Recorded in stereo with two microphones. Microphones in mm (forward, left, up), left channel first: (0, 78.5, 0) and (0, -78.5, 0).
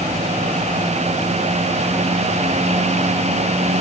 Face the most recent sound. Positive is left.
No sound to turn to.